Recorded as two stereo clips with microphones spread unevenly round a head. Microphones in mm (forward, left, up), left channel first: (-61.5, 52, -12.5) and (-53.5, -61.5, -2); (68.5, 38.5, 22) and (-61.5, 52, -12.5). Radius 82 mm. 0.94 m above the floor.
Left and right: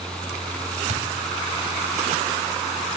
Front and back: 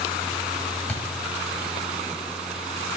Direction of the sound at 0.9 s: 80° right.